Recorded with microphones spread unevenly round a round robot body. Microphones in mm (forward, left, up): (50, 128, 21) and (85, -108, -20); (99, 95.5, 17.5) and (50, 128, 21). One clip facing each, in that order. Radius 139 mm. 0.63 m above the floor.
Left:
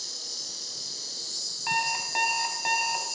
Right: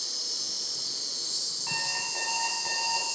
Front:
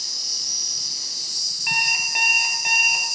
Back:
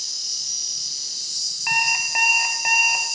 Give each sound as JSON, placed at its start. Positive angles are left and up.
{"t": 0.0, "sound": "an insect", "azimuth_deg": 10, "distance_m": 1.0}
{"t": 1.7, "sound": "an alarm clock", "azimuth_deg": 90, "distance_m": 1.9}